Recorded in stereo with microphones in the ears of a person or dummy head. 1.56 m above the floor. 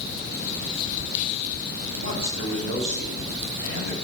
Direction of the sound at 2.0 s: 70° right (ahead or behind).